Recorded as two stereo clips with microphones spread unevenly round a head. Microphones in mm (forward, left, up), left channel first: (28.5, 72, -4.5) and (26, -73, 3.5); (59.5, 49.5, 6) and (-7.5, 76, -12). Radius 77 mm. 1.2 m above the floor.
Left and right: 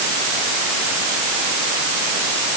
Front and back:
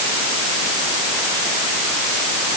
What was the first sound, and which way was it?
Only background noise.